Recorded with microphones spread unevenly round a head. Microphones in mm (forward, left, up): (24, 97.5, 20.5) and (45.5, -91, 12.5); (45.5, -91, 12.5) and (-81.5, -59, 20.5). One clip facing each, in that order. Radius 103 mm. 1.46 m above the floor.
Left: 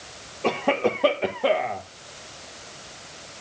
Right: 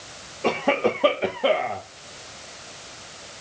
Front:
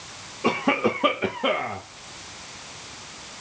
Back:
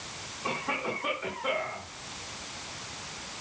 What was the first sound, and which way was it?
A cough, 5° left.